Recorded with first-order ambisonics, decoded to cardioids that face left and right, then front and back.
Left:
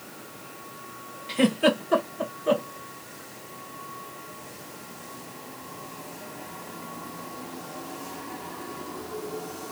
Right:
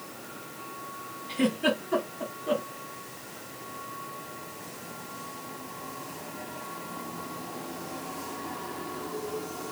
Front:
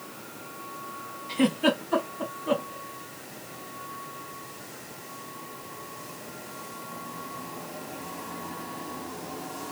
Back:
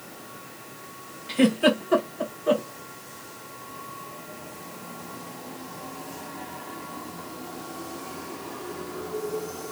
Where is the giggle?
130° left, 1.9 m.